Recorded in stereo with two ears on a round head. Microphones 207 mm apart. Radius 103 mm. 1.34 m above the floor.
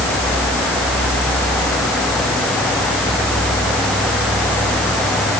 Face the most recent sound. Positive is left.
No sound to turn to.